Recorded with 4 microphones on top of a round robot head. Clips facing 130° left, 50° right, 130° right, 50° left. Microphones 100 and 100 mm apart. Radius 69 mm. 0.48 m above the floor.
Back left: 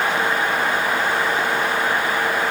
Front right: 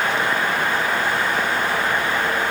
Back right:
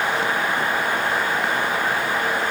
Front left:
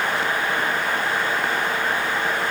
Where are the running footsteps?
I don't hear running footsteps.